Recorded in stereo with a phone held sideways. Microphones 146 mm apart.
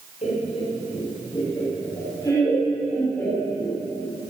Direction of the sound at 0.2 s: 50° left (ahead or behind).